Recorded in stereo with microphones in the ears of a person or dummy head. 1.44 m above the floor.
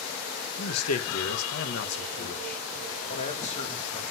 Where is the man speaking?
85° left, 1.8 m; by 4.0 s 25° left (ahead or behind), 2.5 m.